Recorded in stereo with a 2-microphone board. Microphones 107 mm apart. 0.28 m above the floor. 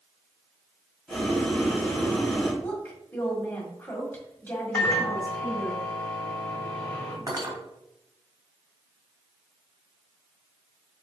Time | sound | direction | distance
1.1 | boiling | centre (ahead or behind) | 2.0 m
2.6 | a woman speaking | 15° left (ahead or behind) | 1.3 m
4.7 | a microwave | 20° left (ahead or behind) | 1.4 m
7.3 | cutlery clinking | 40° right (ahead or behind) | 1.0 m